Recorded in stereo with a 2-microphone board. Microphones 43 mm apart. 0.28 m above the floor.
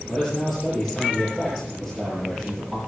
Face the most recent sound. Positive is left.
turn(degrees=-10)  # may be behind; listen again after turning